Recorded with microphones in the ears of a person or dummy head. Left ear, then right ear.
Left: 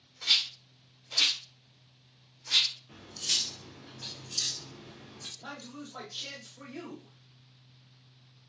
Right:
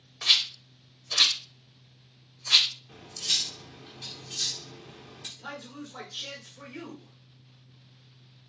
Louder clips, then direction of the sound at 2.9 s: Right 3 dB; 5° right (ahead or behind).